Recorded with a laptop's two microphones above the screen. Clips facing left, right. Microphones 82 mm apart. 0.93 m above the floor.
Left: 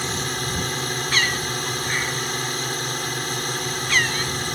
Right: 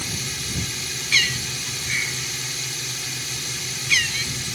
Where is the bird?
45° left (ahead or behind).